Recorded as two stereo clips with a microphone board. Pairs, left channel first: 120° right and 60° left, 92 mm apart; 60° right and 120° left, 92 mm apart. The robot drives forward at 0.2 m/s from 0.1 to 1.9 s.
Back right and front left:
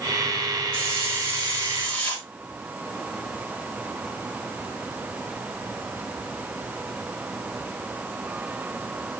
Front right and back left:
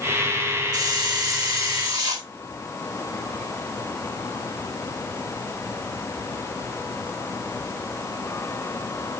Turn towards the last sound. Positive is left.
turn(degrees=165)